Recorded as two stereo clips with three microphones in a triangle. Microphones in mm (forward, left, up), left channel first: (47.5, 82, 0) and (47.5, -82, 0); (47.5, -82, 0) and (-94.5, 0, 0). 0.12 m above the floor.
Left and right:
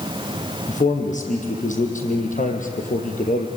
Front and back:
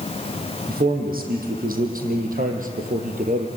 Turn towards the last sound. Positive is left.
turn(degrees=120)